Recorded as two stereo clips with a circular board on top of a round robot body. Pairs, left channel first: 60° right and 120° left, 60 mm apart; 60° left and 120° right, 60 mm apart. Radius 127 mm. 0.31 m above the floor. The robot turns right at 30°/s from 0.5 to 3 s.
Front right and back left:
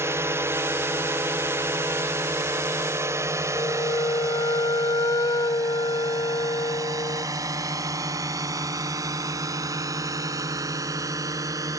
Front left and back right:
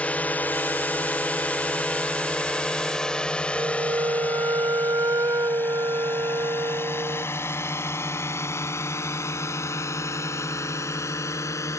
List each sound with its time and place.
0.0 s a drone: 120° left; by 11.8 s 95° left
3.5 s a flute: 80° right